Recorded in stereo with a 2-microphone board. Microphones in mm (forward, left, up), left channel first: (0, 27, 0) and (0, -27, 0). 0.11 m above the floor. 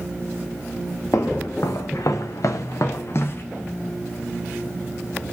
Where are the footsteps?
65° left (ahead or behind), 1.7 m; by 3.4 s 45° left (ahead or behind), 1.5 m.